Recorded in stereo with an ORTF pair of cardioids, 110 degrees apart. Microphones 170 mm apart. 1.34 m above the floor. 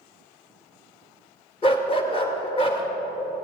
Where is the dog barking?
35° left, 2.5 m.